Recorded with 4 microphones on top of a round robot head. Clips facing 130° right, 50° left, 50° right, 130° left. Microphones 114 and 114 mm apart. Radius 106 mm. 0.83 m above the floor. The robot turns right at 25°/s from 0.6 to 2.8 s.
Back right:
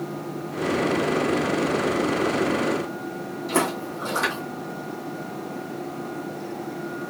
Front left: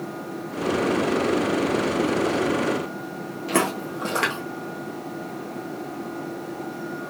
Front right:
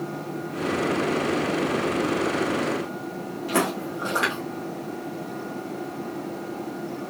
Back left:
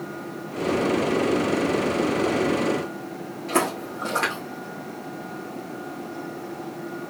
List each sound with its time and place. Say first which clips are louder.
3.5 s footsteps: front left 1 dB, back left 1 dB; 35° left, 0.9 m